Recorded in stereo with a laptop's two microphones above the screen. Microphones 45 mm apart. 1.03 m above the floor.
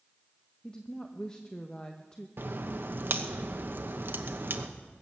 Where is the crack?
50° right (ahead or behind), 1.0 m.